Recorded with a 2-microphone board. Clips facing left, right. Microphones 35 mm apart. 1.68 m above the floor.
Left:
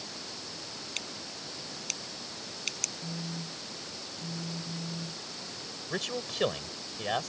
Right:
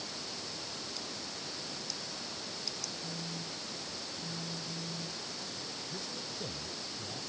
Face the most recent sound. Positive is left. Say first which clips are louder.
# left 7 dB
turn(degrees=70)  # may be behind; listen again after turning